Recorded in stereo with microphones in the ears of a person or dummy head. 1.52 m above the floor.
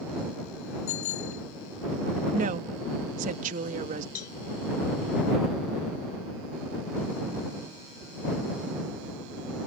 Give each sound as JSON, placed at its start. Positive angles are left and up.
{"t": 0.9, "sound": "a bicycle bell", "side_deg": 80}
{"t": 2.3, "sound": "a woman speaking", "side_deg": -45}
{"t": 4.2, "sound": "a cowbell", "side_deg": 55}